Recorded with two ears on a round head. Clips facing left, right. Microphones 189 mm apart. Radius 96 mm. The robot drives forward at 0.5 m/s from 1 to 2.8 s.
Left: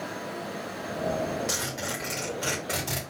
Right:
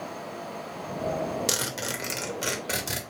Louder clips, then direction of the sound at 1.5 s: Right 1 dB; 45° right (ahead or behind).